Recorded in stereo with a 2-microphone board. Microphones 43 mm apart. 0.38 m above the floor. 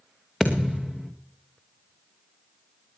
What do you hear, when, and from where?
0.4 s a thud: 5° left (ahead or behind), 2 m